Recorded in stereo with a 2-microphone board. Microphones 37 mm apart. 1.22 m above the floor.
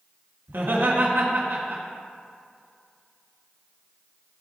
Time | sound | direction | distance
0.5 | laughter | 85° right | 1.9 m